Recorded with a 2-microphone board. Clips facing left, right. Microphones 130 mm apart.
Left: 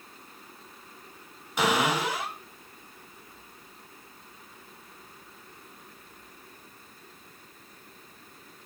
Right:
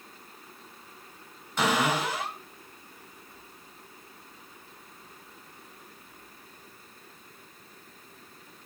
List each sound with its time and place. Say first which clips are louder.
1.6 s a cupboard door: left 1 dB; 10° left (ahead or behind), 2.5 m